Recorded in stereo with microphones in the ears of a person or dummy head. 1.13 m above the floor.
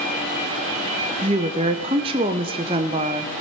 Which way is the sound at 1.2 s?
20° right (ahead or behind).